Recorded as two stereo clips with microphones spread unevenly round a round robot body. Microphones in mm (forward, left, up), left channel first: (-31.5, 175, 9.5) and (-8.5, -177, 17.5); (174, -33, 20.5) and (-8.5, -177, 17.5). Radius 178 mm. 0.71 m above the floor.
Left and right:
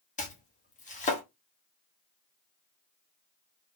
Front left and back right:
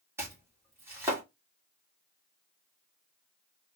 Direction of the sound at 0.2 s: 145° left.